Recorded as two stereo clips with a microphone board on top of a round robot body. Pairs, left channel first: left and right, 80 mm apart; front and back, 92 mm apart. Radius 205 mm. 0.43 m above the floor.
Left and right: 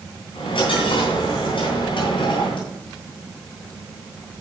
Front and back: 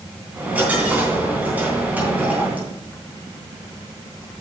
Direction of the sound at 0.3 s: 105° left.